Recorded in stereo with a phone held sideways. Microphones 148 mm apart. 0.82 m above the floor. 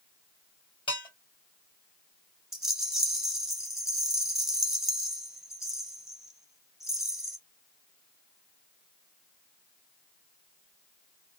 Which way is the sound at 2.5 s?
5° right (ahead or behind).